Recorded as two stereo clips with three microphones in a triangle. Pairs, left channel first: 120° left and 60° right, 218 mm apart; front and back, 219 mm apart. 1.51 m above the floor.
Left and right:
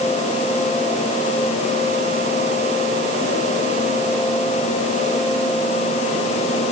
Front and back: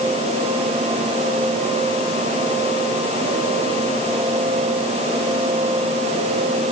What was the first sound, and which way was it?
Only background noise.